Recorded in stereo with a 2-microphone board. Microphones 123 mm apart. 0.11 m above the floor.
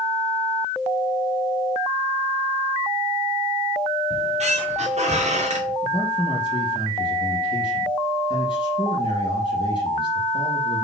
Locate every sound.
4.1 s a squeak: 65° right (ahead or behind), 2.5 m
5.8 s a man speaking: 40° left (ahead or behind), 2.5 m